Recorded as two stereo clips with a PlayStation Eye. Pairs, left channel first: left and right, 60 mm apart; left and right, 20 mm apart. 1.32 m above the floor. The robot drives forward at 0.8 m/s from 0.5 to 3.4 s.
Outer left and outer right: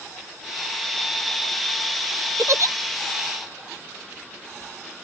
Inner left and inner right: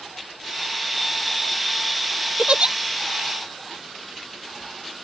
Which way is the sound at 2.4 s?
50° right (ahead or behind).